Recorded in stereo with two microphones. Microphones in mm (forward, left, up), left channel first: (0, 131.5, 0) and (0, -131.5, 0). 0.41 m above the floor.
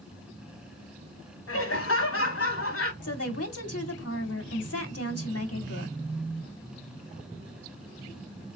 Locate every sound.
1.5 s laughter: 60° left (ahead or behind), 3.5 m
3.0 s a woman speaking: 65° left (ahead or behind), 2.5 m